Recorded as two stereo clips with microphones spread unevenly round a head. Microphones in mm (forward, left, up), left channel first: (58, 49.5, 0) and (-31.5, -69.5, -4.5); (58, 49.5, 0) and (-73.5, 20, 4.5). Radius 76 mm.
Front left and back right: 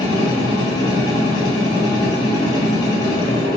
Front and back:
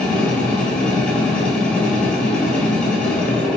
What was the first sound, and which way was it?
A machine running, 90° left.